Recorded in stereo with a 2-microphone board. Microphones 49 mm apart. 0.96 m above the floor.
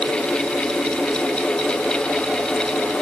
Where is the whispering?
No whispering in this recording.